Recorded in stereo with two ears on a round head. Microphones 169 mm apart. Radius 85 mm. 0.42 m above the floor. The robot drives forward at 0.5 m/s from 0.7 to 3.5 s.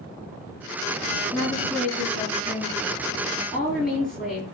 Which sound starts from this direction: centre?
A woman speaking, at 1.3 s.